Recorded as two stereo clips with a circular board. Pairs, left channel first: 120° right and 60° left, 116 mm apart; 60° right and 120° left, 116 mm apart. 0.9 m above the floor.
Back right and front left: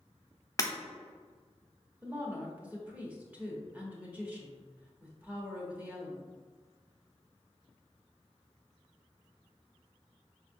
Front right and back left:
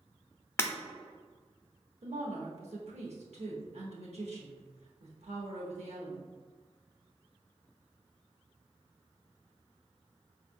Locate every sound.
0.6 s breaking glass: 105° right, 0.8 m
2.0 s a woman speaking: 135° left, 1.3 m